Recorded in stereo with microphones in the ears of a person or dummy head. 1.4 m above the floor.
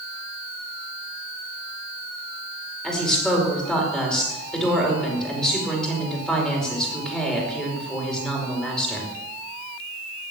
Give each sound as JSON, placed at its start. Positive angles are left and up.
{"t": 2.8, "sound": "a woman speaking", "side_deg": 5, "distance_m": 5.0}